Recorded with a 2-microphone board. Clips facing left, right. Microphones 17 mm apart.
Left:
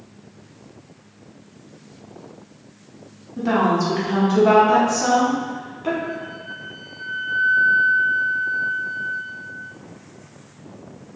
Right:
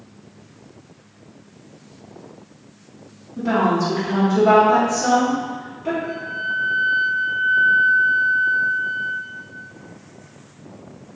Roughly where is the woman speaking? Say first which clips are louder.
Even; centre.